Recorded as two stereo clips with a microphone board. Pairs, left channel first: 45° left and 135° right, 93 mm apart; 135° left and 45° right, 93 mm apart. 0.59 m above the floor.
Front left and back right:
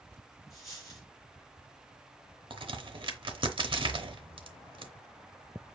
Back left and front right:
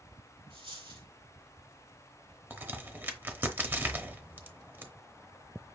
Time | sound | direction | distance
0.5 | a dropped coin | 45° right | 3.5 m
2.5 | a crack | 110° right | 0.8 m